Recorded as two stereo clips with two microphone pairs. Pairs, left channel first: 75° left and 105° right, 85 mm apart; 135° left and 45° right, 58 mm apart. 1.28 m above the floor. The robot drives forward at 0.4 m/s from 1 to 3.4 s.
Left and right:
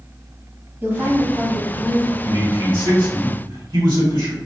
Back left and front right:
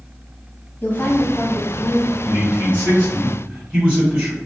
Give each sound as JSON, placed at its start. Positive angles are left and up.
{"t": 0.8, "sound": "a woman speaking", "azimuth_deg": -170, "distance_m": 1.0}
{"t": 2.2, "sound": "a man speaking", "azimuth_deg": -100, "distance_m": 1.9}